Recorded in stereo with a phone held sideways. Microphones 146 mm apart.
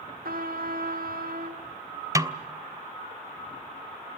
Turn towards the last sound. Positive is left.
turn(degrees=-20)  # may be behind; listen again after turning